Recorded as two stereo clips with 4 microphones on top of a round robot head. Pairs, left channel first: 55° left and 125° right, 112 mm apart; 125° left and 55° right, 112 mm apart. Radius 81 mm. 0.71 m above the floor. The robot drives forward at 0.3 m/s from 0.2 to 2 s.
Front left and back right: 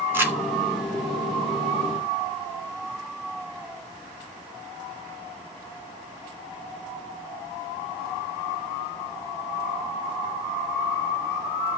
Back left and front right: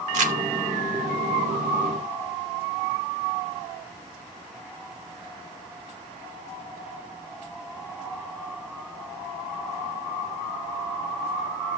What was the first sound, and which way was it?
Crumpling, 55° right.